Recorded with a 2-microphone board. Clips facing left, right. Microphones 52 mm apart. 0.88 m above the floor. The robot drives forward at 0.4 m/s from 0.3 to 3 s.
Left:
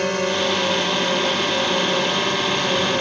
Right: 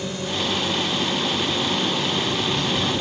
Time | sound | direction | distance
0.0 | a drone | 60° left (ahead or behind) | ?